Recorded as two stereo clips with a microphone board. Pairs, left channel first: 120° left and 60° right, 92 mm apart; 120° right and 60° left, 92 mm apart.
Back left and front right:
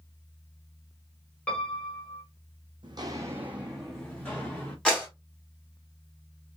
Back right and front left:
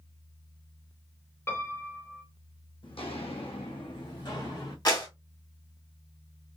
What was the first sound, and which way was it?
A piano, 170° right.